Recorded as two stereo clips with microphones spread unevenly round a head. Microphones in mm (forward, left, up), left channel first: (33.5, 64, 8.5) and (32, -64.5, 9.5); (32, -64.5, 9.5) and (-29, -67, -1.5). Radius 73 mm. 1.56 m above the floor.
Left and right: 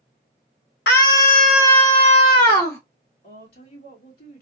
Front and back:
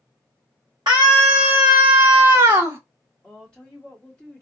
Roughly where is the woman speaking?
Left.